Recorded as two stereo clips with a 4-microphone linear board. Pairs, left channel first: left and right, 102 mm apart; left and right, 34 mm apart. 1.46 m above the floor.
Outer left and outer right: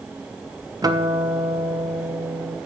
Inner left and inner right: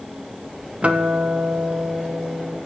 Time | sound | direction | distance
0.8 | a guitar | 40° right (ahead or behind) | 0.6 m